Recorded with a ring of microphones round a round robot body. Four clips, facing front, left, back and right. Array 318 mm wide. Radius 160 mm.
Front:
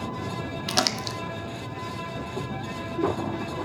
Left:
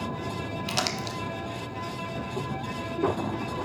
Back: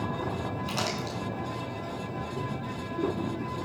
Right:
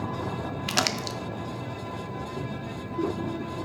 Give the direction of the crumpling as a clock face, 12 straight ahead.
12 o'clock.